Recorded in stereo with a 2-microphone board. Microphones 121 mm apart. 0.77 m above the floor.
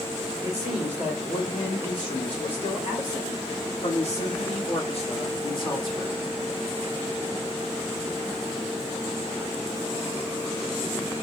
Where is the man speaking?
50° left (ahead or behind), 3 m; by 6.2 s 30° left (ahead or behind), 1.1 m.